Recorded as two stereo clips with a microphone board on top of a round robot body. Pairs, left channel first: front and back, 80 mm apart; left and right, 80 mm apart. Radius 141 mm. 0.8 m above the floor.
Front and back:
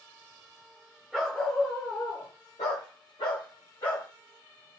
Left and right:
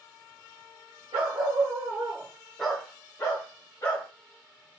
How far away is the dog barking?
About 0.9 m.